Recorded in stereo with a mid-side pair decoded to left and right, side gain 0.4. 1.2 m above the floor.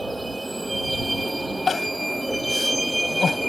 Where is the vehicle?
15° right; by 3.5 s 5° right.